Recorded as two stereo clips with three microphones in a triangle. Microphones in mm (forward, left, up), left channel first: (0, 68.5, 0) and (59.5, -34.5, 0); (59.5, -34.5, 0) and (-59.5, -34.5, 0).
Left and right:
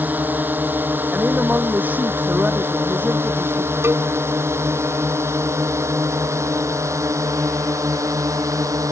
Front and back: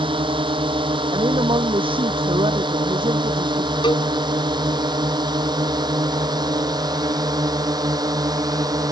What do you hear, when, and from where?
0.0 s a drone: 135° right; by 8.9 s 120° right
1.1 s a woman speaking: 135° right
3.8 s a cowbell: 5° right